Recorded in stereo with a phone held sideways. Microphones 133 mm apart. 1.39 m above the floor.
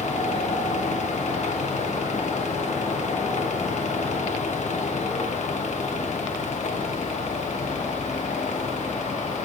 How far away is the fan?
About 1.0 m.